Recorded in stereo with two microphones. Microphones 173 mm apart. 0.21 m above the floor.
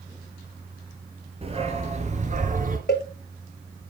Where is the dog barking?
35° right (ahead or behind), 2.0 m; by 2.8 s 55° right (ahead or behind), 1.4 m.